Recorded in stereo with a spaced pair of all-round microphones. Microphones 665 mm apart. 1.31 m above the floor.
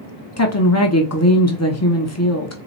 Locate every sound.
0.4 s a woman speaking: 25° left (ahead or behind), 0.8 m